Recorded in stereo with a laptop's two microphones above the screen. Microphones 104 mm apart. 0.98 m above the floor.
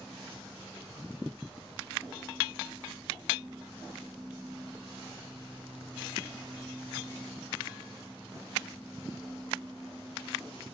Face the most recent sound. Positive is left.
turn(degrees=-10)  # may be behind; listen again after turning